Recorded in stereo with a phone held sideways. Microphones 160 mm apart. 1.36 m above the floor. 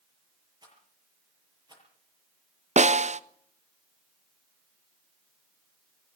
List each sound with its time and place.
0.6 s a rattle: 25° right (ahead or behind), 7.5 m
2.8 s a snare drum: 45° right (ahead or behind), 0.7 m